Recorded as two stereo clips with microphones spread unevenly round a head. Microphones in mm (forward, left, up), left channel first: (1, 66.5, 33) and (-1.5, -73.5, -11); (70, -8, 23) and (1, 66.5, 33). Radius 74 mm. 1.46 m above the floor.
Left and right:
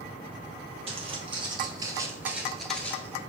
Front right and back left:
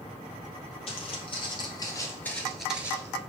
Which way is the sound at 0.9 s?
30° right.